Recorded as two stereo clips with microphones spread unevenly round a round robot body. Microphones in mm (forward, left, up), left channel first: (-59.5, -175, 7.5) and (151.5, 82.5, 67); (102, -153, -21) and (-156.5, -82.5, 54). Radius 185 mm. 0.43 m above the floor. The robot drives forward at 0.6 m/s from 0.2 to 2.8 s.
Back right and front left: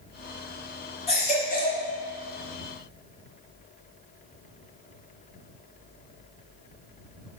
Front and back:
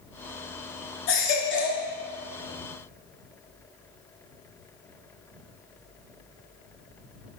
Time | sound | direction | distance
1.1 | a baby crying | 55° right | 2.5 m